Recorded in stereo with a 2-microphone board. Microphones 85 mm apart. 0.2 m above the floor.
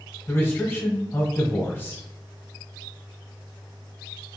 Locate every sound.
0.3 s a man speaking: 25° left (ahead or behind), 1.3 m